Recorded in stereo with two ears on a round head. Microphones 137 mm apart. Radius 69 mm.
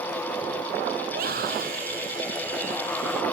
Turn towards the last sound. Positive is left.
turn(degrees=-60)  # may be behind; listen again after turning